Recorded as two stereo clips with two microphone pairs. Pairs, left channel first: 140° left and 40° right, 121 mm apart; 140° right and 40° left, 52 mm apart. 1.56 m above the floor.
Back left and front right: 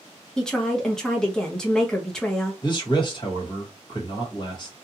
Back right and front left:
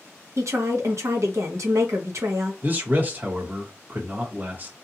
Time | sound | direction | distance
0.4 | a woman speaking | 55° left | 0.9 m
2.6 | a man speaking | 90° left | 1.3 m